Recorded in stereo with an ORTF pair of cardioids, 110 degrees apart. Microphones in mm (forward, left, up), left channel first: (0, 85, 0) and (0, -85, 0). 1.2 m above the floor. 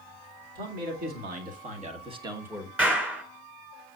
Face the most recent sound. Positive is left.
turn(degrees=-10)